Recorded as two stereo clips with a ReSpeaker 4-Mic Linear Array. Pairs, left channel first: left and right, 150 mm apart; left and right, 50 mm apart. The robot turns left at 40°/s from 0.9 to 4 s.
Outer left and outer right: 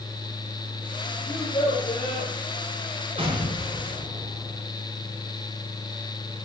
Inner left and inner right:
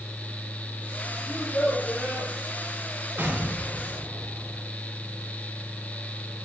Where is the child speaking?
155° left, 6 m; by 2.3 s 115° left, 6 m.